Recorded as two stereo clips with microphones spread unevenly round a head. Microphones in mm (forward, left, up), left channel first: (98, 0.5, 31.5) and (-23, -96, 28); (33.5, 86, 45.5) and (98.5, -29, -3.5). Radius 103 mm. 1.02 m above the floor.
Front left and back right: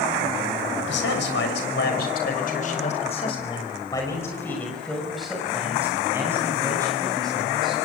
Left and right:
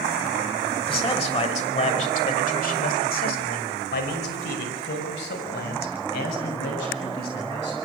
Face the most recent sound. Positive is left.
turn(degrees=150)